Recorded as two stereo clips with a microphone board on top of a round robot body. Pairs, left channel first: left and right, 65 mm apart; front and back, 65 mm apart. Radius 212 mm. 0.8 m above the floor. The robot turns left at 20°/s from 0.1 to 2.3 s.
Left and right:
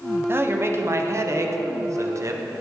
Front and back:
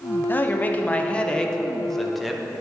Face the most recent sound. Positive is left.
turn(degrees=-90)